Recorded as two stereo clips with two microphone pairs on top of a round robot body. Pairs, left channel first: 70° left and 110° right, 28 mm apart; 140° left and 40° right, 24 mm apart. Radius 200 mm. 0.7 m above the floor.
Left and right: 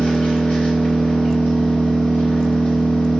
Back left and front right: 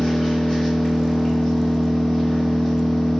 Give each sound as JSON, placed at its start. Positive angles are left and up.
{"t": 0.0, "sound": "an engine running", "azimuth_deg": 75, "distance_m": 1.4}